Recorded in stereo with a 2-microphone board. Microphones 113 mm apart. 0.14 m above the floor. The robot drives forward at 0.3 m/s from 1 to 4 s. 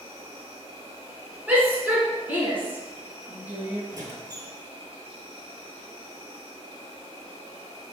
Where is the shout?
15° right (ahead or behind), 1.6 m.